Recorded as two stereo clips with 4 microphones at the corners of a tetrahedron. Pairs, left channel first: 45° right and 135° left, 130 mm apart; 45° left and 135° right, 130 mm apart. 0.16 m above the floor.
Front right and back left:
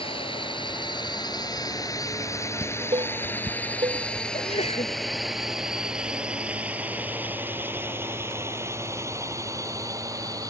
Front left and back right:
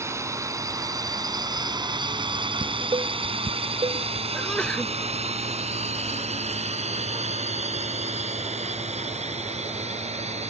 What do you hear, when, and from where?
0.0 s a drone: 75° right; by 10.5 s 165° right
2.6 s dishes clattering: straight behind
4.3 s a sneeze: 35° right